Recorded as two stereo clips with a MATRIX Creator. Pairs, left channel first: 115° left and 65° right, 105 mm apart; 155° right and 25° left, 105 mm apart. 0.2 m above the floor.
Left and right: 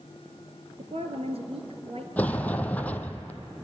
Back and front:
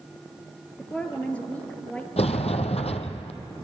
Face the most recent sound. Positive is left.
turn(degrees=-170)